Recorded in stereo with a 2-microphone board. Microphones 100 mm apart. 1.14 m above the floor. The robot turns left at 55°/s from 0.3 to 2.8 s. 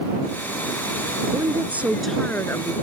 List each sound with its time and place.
1.3 s a woman speaking: 140° right; by 2.7 s 140° left